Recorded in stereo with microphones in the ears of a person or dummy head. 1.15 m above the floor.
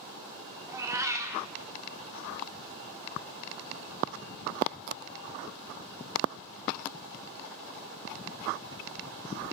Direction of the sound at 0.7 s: 15° right (ahead or behind).